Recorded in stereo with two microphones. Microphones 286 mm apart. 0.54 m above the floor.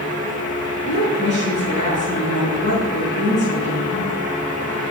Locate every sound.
0.8 s a woman speaking: 25° left (ahead or behind), 6 m